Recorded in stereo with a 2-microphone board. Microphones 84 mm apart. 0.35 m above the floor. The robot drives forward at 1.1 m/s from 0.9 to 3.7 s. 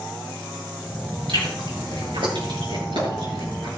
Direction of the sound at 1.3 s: 80° right.